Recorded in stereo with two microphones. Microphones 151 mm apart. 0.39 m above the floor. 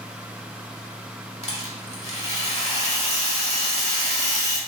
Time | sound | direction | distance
1.4 | a rattle | 40° left (ahead or behind) | 0.7 m